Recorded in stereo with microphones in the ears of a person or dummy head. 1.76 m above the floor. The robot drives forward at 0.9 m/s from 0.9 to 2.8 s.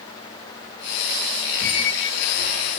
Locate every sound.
1.6 s a squeak: 35° left (ahead or behind), 1.8 m